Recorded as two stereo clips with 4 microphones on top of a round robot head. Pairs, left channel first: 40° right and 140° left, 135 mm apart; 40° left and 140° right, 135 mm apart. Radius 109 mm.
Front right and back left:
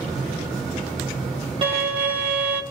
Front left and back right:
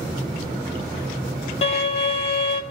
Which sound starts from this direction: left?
A violin, at 1.6 s.